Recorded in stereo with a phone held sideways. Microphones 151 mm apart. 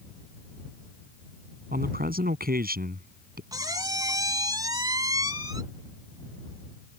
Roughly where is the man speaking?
Right.